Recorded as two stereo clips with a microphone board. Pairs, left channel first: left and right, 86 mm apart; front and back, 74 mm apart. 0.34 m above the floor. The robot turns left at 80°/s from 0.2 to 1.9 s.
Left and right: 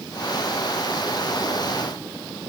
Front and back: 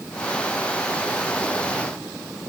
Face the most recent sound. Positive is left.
No sound to turn to.